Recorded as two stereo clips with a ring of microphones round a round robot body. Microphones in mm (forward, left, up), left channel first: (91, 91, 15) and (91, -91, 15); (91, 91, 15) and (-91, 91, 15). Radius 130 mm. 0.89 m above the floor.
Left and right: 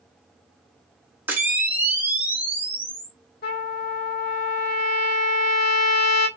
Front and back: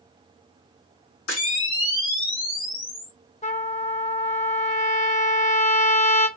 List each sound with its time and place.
1.3 s a camera shutter: 10° right, 1.4 m
3.4 s a trumpet: 55° left, 1.0 m